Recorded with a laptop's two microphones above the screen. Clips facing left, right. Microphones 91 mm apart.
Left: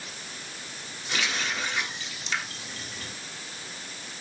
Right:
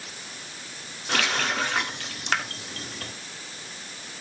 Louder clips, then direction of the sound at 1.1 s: Right 5 dB; 60° right (ahead or behind).